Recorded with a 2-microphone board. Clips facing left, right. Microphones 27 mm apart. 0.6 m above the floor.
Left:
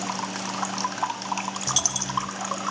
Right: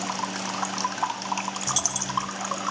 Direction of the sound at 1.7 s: 25° left (ahead or behind).